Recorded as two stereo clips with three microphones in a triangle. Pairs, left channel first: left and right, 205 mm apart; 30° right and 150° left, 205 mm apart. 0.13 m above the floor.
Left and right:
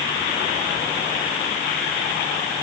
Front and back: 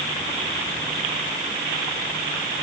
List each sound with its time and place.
Only background noise.